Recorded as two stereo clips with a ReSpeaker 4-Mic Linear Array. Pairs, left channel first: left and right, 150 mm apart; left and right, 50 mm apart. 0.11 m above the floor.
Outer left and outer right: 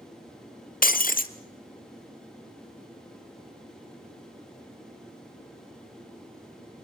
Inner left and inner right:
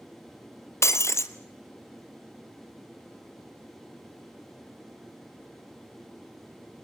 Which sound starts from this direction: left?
Breaking glass, at 0.8 s.